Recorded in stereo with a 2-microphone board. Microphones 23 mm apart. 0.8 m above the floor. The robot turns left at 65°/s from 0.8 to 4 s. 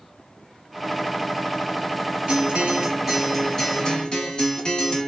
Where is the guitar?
105° right, 1.8 m; by 5.1 s 140° left, 1.8 m.